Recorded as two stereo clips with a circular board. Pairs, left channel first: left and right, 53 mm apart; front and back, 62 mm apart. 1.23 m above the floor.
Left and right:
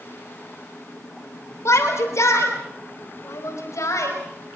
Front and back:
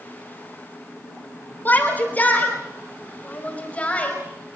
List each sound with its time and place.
1.6 s a shout: 60° left, 4 m; by 4.2 s 70° left, 5.5 m